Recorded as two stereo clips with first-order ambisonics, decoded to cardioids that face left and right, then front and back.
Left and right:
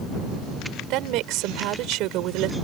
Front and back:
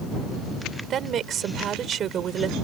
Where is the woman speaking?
120° right.